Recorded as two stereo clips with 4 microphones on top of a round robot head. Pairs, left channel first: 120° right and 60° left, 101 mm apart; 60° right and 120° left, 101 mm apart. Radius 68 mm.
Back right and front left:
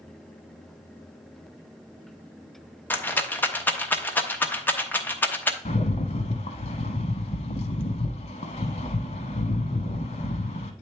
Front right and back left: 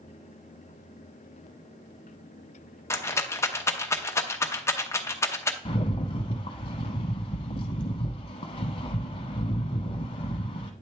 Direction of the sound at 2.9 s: 75° right.